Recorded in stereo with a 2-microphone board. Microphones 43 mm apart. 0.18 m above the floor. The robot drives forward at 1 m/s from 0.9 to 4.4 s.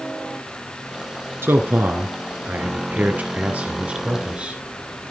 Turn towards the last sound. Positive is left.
turn(degrees=-25)  # may be behind; listen again after turning